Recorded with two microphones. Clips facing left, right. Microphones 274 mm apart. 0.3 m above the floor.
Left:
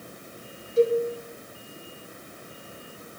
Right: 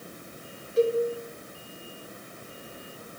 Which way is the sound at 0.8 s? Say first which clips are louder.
Left 2 dB; 65° right (ahead or behind).